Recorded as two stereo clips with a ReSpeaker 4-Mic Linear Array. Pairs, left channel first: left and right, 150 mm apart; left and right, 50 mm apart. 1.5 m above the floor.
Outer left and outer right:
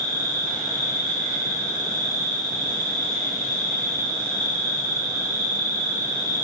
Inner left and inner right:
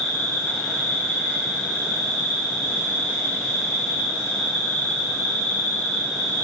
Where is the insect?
65° left (ahead or behind), 3.5 m.